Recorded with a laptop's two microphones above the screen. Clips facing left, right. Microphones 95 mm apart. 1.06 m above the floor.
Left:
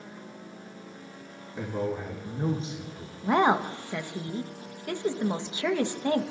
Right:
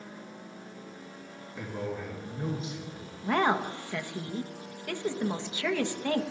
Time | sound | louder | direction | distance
1.6 | a man speaking | left 5 dB | 30° left (ahead or behind) | 3 m
3.2 | a woman speaking | left 4 dB | 20° left (ahead or behind) | 1.4 m